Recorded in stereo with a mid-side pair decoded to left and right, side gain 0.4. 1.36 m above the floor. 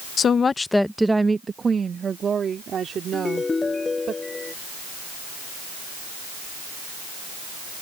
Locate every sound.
0.2 s a woman speaking: 60° left; by 4.1 s 60° right
3.1 s a ringtone: 30° left